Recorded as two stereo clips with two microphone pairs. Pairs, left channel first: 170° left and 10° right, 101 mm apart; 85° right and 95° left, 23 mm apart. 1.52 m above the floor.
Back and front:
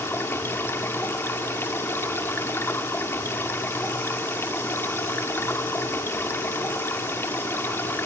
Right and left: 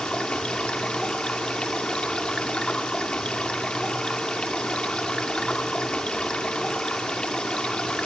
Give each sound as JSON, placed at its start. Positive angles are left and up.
{"t": 0.0, "sound": "running water", "azimuth_deg": -125, "distance_m": 2.5}